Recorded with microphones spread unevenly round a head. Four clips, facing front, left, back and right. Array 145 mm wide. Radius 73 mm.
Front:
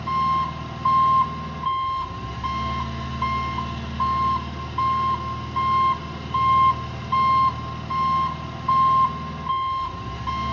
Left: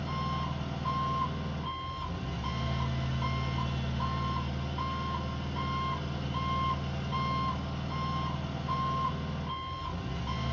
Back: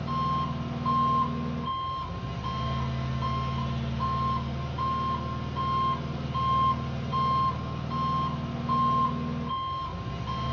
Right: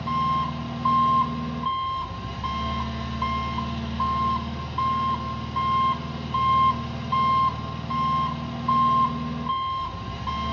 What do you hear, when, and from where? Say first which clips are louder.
0.0 s an engine running: right 11 dB, front 7 dB; 40° right, 2.5 m